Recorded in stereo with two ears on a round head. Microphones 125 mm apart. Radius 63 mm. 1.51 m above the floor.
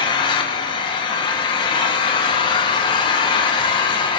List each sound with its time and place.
0.0 s an engine running: 35° left (ahead or behind), 1.1 m